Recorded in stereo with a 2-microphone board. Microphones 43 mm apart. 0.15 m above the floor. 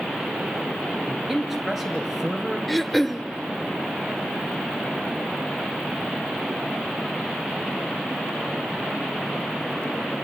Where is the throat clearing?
5° left (ahead or behind), 0.7 m.